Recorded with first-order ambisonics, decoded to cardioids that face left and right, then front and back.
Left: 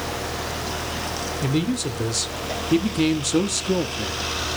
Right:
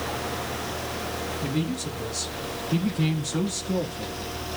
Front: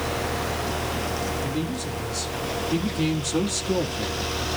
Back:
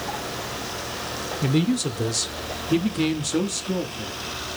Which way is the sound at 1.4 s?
140° left.